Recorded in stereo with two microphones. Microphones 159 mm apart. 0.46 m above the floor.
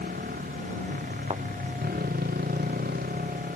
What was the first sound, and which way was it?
A motorcycle, 80° right.